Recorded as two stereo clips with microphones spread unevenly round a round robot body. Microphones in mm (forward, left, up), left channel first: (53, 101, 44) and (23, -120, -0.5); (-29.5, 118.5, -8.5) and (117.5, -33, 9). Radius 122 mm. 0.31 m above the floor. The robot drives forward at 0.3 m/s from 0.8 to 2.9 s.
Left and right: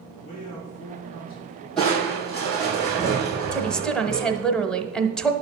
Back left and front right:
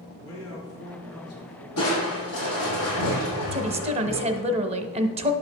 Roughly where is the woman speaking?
Ahead right.